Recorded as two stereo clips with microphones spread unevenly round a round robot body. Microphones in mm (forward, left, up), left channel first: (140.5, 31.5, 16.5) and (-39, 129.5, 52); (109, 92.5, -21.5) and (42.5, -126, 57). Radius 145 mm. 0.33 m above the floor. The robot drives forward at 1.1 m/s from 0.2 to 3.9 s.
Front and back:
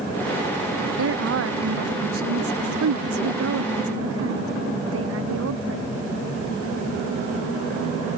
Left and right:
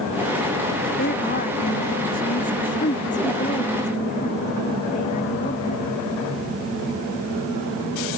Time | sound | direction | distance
1.0 | a woman speaking | 135° left | ?